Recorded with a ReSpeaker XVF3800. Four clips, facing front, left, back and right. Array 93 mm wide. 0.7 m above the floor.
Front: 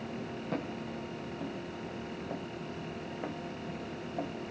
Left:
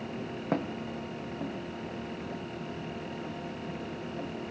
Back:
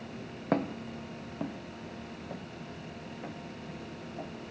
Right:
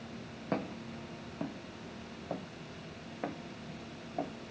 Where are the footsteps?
155° left, 1.2 m; by 4.3 s 55° right, 2.5 m.